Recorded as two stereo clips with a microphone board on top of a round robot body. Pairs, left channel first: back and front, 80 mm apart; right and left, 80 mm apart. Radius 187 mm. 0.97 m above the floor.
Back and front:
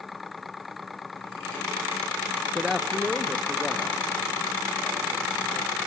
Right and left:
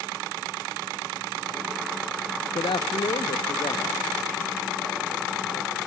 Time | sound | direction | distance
2.5 | a man speaking | 85° right | 0.5 m